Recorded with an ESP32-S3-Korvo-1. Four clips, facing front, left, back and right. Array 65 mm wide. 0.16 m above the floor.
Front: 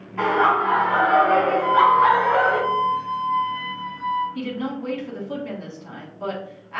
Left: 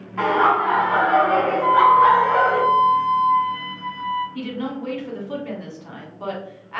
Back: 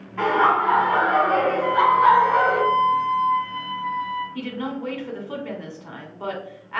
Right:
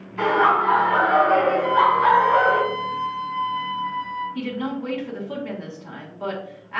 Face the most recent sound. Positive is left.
turn(degrees=180)